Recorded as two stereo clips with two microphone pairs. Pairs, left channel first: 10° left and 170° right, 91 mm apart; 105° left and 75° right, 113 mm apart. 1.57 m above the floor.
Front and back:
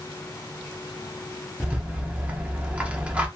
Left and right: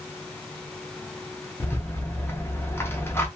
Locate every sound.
1.6 s a rattle: 140° left, 0.6 m